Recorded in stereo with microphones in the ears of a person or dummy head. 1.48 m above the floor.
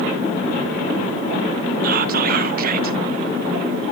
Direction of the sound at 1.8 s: 55° right (ahead or behind).